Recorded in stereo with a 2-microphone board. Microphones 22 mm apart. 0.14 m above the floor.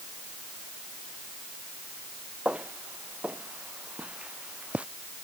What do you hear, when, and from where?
2.5 s footsteps: 75° right (ahead or behind); by 4.9 s 65° right (ahead or behind)